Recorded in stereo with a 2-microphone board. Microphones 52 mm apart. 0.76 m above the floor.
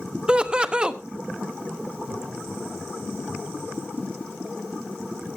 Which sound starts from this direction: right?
Laughter, at 0.3 s.